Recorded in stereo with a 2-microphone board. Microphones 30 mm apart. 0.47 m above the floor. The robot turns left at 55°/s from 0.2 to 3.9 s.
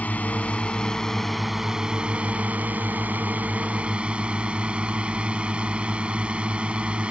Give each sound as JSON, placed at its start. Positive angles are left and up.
{"t": 0.0, "sound": "a drone", "azimuth_deg": 65}